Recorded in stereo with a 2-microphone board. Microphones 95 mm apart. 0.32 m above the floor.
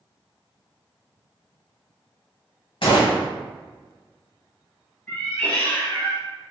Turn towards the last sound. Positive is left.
turn(degrees=15)  # may be behind; listen again after turning